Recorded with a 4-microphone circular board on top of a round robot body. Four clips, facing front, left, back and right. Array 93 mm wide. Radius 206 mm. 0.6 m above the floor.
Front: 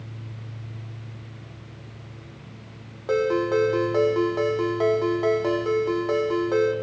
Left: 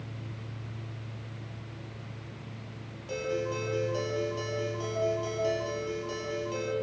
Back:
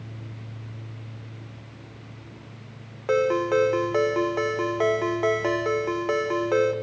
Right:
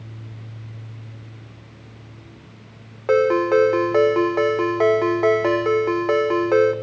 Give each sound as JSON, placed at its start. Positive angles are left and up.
{"t": 3.1, "sound": "a ringtone", "azimuth_deg": -100, "distance_m": 1.3}